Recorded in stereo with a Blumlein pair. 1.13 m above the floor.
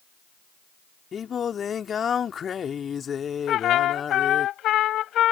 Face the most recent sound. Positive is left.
turn(degrees=30)